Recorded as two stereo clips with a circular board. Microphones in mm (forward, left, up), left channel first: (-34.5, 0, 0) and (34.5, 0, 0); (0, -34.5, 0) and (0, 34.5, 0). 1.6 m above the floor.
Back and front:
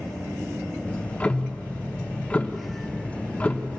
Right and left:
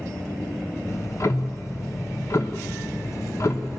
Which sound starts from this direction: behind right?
Ticking, at 0.9 s.